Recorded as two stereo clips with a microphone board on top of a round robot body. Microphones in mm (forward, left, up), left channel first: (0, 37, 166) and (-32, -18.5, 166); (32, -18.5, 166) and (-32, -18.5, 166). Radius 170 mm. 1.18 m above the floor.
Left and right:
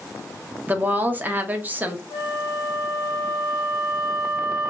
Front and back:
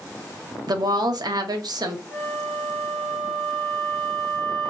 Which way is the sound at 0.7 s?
175° left.